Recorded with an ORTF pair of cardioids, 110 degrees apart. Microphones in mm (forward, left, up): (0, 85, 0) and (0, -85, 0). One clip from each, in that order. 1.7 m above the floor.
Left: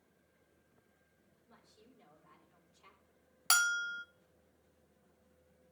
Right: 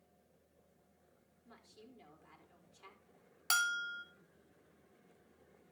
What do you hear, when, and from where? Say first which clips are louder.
1.4 s a woman speaking: right 4 dB; 60° right, 4 m
3.5 s a bell: left 3 dB; 25° left, 0.6 m